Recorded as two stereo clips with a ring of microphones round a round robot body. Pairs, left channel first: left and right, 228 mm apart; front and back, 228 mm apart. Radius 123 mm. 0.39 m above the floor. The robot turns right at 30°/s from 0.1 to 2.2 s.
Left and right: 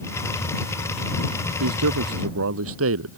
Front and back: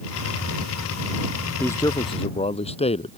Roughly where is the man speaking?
Right.